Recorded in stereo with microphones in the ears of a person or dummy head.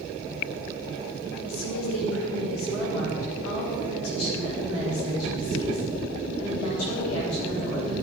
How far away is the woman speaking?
About 5.5 m.